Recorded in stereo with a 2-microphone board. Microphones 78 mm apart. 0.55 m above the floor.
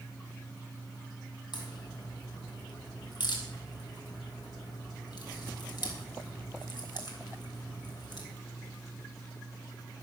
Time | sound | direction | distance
1.5 | a crack | 65° left (ahead or behind) | 3 m